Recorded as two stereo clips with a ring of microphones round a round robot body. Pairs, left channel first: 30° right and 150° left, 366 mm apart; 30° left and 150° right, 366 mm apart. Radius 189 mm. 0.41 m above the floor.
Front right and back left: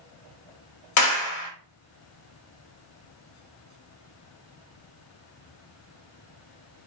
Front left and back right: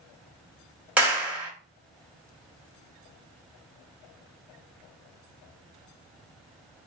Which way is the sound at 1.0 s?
65° right.